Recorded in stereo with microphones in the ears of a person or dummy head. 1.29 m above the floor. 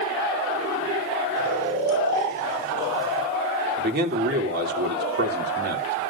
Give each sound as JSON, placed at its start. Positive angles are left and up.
{"t": 1.4, "sound": "snoring", "side_deg": -60, "distance_m": 8.0}
{"t": 3.8, "sound": "a man speaking", "side_deg": -55, "distance_m": 3.0}